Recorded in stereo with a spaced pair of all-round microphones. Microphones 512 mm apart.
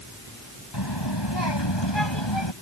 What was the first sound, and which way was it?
A child speaking, 50° left (ahead or behind).